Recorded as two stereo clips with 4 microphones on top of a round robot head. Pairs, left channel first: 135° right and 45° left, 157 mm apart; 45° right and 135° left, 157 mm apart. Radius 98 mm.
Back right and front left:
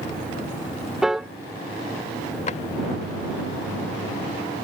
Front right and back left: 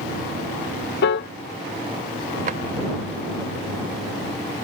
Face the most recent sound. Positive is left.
turn(degrees=180)